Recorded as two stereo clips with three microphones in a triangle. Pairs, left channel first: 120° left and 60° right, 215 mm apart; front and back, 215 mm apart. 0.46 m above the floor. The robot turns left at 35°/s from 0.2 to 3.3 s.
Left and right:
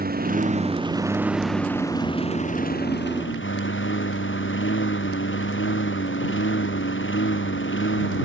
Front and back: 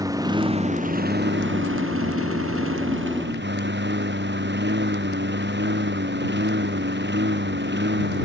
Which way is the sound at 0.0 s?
105° right.